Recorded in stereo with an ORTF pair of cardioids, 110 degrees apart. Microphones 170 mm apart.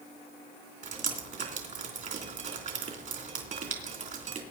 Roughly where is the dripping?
Ahead right.